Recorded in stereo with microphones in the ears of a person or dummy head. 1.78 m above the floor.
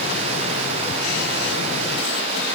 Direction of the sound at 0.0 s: 40° right (ahead or behind).